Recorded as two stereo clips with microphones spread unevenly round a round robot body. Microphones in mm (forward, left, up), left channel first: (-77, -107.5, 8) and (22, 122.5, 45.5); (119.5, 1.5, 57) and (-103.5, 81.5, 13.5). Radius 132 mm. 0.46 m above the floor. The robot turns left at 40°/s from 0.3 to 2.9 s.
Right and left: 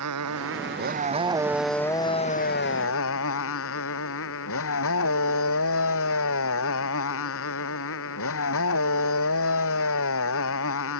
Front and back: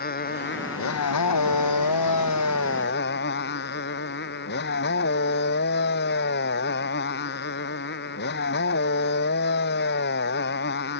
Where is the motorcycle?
30° left; by 11.0 s 70° right.